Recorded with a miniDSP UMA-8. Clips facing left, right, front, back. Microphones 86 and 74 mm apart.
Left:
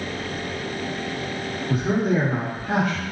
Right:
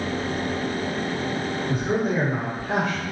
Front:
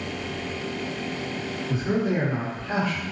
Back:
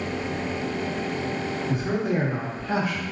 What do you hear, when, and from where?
1.7 s a man speaking: 105° left, 1.6 m; by 3.0 s 110° left, 0.9 m